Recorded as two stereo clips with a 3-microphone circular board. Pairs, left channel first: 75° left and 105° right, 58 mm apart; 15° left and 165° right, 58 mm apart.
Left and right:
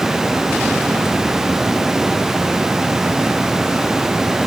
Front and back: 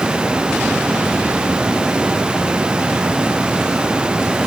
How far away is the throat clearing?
I don't hear throat clearing.